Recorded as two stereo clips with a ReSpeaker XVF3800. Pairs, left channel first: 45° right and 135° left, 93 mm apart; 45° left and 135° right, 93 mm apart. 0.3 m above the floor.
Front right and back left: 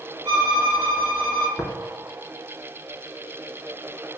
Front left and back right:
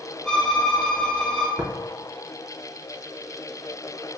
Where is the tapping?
105° right, 0.6 m.